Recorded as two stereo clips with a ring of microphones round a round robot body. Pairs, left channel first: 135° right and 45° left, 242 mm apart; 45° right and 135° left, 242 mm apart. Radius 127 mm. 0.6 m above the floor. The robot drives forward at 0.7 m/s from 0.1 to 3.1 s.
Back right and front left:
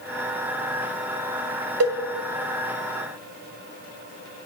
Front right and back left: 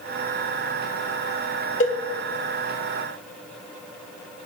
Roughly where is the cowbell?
Ahead.